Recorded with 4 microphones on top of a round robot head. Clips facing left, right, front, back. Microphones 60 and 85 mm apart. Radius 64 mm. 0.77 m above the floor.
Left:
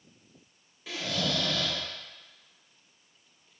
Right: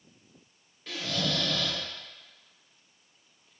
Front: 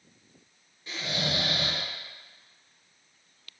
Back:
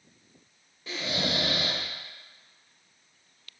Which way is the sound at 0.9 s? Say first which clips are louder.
Even, back 2 dB; 175° left.